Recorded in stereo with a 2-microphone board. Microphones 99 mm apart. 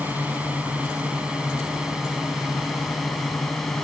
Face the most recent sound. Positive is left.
turn(degrees=5)  # may be behind; listen again after turning